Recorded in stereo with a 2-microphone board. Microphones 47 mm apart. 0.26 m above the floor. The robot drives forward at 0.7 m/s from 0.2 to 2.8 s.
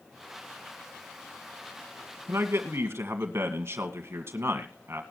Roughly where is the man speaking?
Right.